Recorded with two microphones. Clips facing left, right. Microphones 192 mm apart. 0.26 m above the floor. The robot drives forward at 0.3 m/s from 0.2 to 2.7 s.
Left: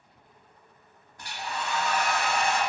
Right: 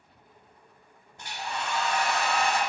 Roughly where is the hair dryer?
Right.